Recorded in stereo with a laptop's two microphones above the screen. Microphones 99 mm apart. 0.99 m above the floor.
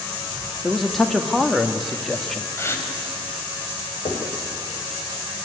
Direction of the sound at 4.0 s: 85° left.